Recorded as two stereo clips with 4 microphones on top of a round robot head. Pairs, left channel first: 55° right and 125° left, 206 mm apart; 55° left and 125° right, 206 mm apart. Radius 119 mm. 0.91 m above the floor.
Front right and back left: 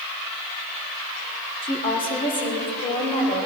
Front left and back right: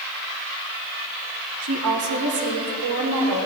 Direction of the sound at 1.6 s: 125° right.